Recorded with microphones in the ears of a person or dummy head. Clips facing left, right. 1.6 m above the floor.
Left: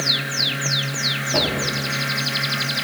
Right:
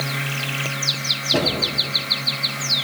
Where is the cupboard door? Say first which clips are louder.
Right 2 dB; 20° right (ahead or behind), 2 m.